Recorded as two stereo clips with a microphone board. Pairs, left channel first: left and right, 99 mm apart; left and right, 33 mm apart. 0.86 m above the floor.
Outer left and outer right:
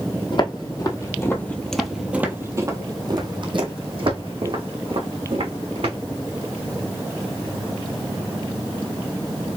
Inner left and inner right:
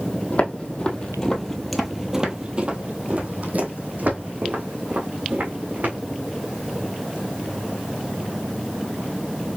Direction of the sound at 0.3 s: 50° left (ahead or behind).